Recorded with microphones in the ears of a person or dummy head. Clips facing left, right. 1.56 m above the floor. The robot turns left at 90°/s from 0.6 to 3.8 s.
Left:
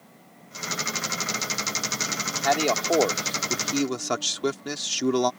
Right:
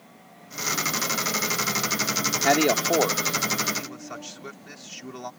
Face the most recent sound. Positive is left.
turn(degrees=95)